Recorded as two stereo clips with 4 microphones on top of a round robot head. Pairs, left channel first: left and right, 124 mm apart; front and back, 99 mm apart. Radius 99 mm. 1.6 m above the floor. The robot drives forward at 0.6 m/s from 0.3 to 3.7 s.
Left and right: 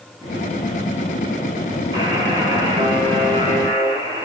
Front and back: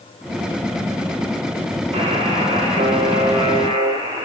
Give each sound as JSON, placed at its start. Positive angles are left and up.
{"t": 1.9, "sound": "a buzzer", "azimuth_deg": -150, "distance_m": 9.0}